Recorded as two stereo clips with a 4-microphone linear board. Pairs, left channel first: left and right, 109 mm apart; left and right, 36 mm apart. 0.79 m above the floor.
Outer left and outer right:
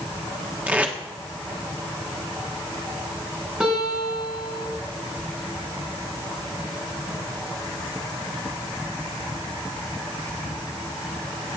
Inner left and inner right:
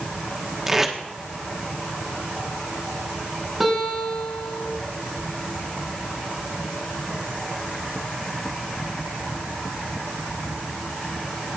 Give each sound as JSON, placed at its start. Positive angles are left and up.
{"t": 0.7, "sound": "tape being pulled", "side_deg": -15, "distance_m": 1.4}
{"t": 3.6, "sound": "a guitar", "side_deg": -10, "distance_m": 6.0}